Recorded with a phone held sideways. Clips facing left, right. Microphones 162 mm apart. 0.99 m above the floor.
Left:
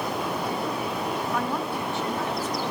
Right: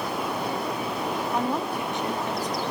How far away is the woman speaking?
About 0.8 m.